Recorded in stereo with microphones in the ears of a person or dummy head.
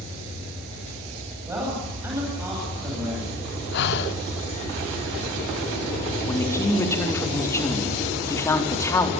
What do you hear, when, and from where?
1.5 s a man speaking: 10° right (ahead or behind), 9.5 m
3.7 s breathing: 65° left (ahead or behind), 1.2 m
6.2 s a man speaking: 20° left (ahead or behind), 4 m